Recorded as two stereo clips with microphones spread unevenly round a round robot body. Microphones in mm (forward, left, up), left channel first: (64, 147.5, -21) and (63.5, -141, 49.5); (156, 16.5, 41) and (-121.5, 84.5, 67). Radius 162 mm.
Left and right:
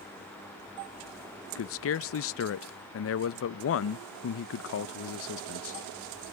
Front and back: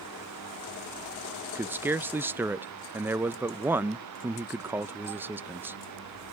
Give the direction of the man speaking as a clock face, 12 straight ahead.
9 o'clock.